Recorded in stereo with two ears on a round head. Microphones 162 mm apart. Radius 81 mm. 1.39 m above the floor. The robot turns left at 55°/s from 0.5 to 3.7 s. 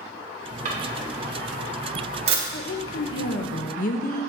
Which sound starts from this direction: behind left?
A woman speaking, at 2.5 s.